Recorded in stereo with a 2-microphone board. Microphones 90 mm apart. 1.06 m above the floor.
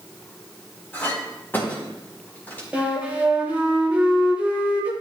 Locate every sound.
0.9 s a clink: 20° left (ahead or behind), 4 m
2.7 s a flute: 15° right (ahead or behind), 2.5 m